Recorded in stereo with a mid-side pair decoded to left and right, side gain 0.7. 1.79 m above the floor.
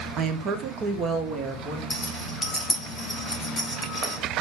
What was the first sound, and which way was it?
A woman speaking, 50° right.